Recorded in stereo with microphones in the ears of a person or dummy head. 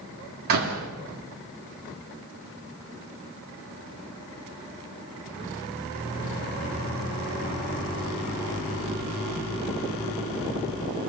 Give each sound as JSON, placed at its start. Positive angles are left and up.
{"t": 0.5, "sound": "a door slam", "side_deg": -55, "distance_m": 2.5}